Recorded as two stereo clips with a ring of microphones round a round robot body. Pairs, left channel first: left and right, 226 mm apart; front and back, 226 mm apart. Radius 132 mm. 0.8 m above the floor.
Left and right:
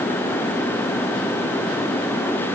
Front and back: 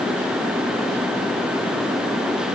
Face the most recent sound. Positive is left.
No sound to turn to.